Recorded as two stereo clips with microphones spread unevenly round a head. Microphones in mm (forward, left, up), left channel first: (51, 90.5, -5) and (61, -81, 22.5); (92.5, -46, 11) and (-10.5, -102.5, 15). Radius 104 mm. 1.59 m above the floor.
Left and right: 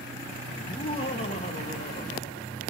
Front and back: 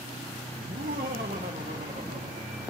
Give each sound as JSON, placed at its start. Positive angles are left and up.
{"t": 0.6, "sound": "laughter", "azimuth_deg": 170, "distance_m": 0.9}